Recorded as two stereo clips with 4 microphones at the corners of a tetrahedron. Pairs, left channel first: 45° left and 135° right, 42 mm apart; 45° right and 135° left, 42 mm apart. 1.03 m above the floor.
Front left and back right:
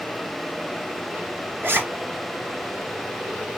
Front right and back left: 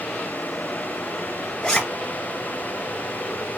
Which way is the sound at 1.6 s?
120° right.